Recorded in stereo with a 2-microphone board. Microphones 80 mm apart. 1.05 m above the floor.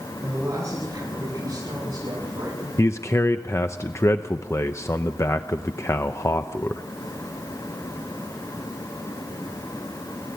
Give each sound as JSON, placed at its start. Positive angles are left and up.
{"t": 0.2, "sound": "a woman speaking", "side_deg": -35, "distance_m": 9.0}
{"t": 2.8, "sound": "a man speaking", "side_deg": 40, "distance_m": 0.7}